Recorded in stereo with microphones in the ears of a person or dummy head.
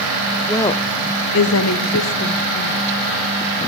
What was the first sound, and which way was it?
A woman speaking, 10° left (ahead or behind).